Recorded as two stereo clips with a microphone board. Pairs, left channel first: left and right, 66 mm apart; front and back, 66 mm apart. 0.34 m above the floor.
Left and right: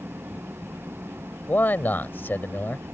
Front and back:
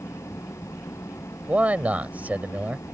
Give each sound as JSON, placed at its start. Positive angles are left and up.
{"t": 0.0, "sound": "an engine running", "azimuth_deg": -35}
{"t": 1.5, "sound": "a man speaking", "azimuth_deg": 130}